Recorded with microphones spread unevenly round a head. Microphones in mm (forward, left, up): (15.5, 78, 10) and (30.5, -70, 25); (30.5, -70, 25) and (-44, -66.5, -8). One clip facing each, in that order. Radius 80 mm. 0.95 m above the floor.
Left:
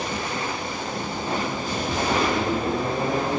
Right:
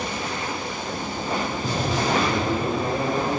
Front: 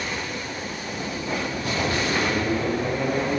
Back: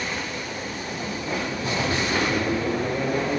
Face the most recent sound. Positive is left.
turn(degrees=-115)